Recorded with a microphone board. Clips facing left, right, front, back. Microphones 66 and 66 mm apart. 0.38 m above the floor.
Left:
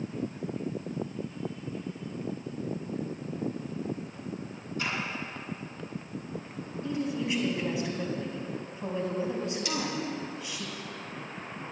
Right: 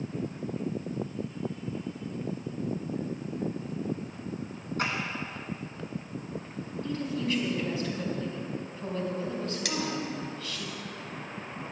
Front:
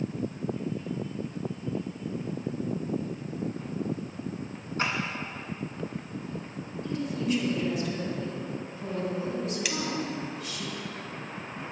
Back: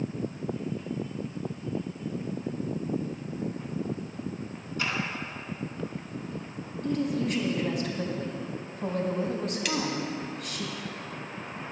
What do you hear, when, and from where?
4.8 s a clap: 50° right, 3.5 m
6.8 s a woman speaking: 160° left, 3 m
9.7 s cutlery clinking: 90° right, 1.5 m